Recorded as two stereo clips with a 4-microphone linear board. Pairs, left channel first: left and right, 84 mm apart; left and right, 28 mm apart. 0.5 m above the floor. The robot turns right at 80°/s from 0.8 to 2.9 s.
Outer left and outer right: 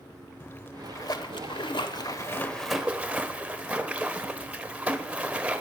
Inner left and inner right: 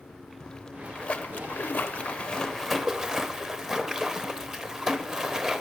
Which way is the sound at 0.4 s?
30° left.